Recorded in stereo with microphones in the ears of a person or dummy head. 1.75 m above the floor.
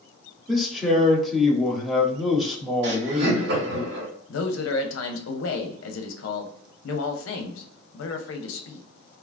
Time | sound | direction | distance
0.5 | a man speaking | centre (ahead or behind) | 0.9 m
2.8 | laughter | 60° right (ahead or behind) | 1.8 m
4.3 | a man speaking | 70° left (ahead or behind) | 0.7 m